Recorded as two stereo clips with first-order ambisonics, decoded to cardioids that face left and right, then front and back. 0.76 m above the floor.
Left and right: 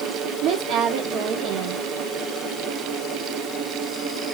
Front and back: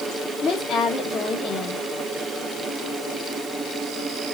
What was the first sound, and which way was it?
A woman speaking, 60° right.